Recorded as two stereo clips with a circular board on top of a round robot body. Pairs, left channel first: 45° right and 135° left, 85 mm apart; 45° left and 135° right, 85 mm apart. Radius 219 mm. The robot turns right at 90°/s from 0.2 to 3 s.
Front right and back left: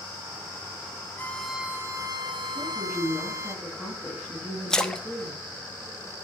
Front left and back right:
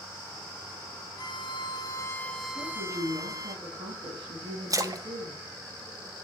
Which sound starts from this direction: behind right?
A splash, at 4.7 s.